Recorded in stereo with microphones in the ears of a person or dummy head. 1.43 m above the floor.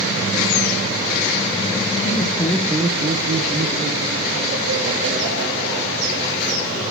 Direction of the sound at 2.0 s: 30° left (ahead or behind).